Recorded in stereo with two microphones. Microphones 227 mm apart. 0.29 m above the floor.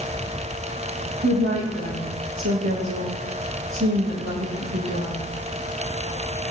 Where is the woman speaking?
75° right (ahead or behind), 9 m.